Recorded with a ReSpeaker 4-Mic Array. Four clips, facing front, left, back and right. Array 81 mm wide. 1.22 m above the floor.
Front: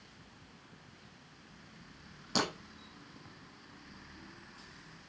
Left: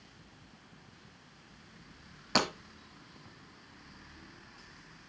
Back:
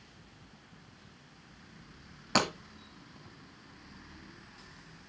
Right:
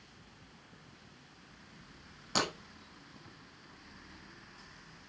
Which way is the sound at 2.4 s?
145° left.